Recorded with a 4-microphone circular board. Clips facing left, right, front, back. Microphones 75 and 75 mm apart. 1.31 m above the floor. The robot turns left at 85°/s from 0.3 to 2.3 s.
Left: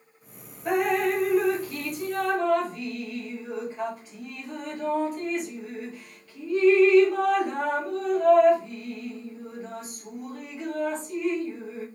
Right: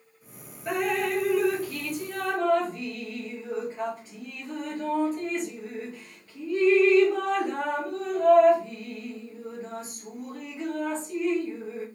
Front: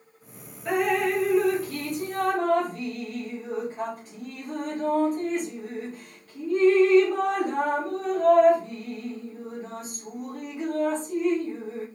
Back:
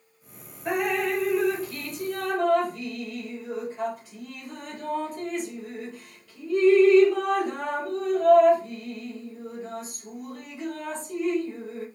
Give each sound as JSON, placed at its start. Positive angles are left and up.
{"t": 0.7, "sound": "dripping", "azimuth_deg": 110, "distance_m": 2.5}